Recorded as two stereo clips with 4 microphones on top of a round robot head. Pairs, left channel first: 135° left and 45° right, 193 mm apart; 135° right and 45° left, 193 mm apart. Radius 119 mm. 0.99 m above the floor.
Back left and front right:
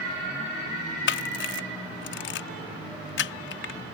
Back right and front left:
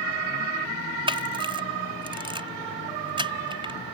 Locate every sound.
1.1 s a camera shutter: 110° left